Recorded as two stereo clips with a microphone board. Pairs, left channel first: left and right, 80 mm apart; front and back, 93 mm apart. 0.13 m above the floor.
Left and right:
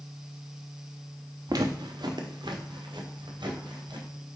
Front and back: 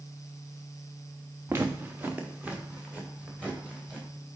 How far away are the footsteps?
About 0.7 m.